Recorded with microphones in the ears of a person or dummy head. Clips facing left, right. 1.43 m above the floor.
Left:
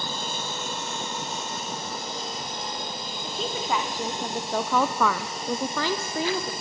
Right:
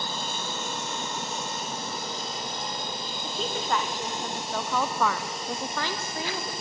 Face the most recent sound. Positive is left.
turn(degrees=55)  # may be behind; listen again after turning